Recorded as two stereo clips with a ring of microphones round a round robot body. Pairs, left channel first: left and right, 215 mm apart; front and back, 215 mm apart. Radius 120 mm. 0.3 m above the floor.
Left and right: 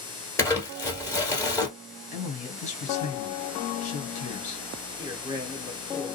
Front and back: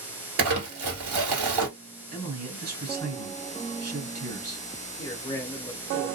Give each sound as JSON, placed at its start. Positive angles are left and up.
{"t": 0.4, "sound": "crumpling", "azimuth_deg": 170, "distance_m": 1.7}
{"t": 2.1, "sound": "a man speaking", "azimuth_deg": 140, "distance_m": 1.8}
{"t": 5.0, "sound": "a man speaking", "azimuth_deg": -50, "distance_m": 0.9}